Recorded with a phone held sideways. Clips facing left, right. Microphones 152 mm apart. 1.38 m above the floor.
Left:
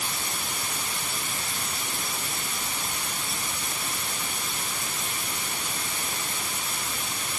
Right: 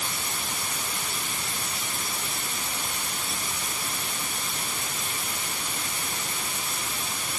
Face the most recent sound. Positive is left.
No sound to turn to.